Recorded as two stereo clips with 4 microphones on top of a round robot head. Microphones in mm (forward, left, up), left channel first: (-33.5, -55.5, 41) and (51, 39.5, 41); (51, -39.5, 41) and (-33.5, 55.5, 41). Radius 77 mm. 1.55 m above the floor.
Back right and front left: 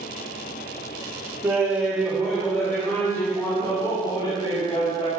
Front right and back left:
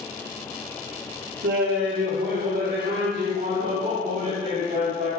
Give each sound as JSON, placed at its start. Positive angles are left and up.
{"t": 1.4, "sound": "laughter", "azimuth_deg": 125, "distance_m": 3.5}